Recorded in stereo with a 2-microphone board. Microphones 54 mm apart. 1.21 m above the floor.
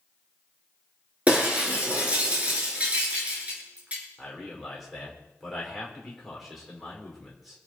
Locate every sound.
1.3 s breaking glass: 25° right (ahead or behind), 5.5 m
4.2 s a man speaking: centre (ahead or behind), 5 m